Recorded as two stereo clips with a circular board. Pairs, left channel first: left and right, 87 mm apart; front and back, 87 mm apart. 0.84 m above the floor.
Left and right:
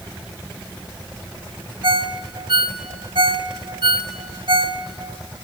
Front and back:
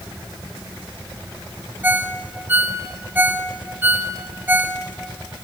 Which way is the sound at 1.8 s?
110° right.